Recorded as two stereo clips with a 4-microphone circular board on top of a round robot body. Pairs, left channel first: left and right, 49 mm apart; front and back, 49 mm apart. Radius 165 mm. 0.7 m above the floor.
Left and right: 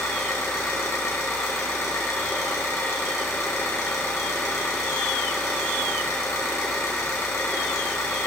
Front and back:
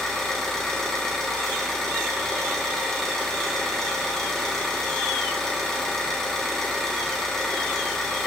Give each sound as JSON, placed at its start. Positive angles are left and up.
{"t": 0.0, "sound": "an engine running", "azimuth_deg": 80, "distance_m": 2.0}